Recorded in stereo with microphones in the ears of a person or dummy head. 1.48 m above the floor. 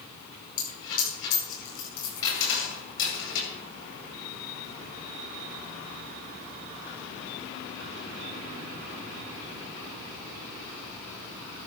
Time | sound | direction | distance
0.6 | a dropped coin | 75° left (ahead or behind) | 9.5 m